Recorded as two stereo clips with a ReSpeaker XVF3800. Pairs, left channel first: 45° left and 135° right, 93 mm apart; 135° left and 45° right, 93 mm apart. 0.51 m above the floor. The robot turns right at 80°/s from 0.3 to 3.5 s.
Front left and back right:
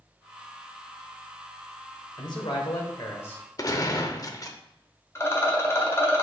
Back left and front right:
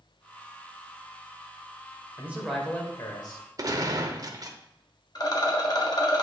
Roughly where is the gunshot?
Ahead.